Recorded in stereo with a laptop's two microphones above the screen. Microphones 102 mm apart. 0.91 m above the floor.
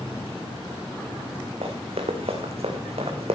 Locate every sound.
1.6 s running footsteps: 65° right (ahead or behind), 4 m; by 3.4 s 75° right (ahead or behind), 3.5 m